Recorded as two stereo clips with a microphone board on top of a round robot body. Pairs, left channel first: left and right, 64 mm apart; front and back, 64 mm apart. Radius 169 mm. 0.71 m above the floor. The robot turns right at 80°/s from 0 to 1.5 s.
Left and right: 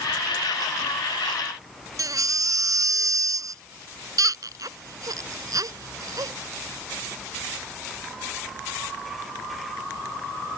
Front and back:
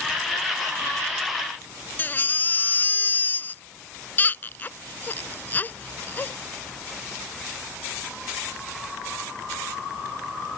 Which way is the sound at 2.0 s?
60° right.